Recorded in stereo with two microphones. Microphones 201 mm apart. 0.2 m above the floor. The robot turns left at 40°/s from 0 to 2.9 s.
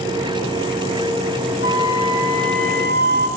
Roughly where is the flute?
Left.